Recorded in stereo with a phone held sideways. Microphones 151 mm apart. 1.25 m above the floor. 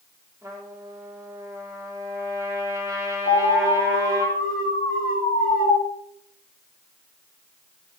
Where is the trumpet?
20° right (ahead or behind), 3.5 m.